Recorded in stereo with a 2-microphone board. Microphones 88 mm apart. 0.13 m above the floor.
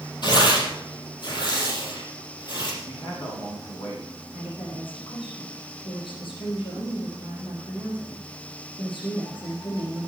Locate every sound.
0.2 s tearing paper: 55° left (ahead or behind), 4.5 m
2.8 s a man speaking: 75° left (ahead or behind), 7.5 m
4.3 s a woman speaking: 75° left (ahead or behind), 6.5 m